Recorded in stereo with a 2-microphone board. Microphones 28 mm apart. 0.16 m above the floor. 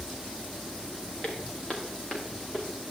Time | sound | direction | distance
1.2 | footsteps | 35° left (ahead or behind) | 4.5 m